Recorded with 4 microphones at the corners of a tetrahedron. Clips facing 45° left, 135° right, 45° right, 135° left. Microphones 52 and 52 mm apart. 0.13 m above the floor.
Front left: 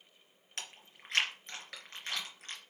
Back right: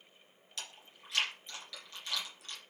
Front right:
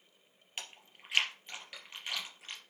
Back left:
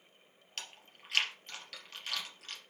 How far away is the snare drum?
No snare drum in this recording.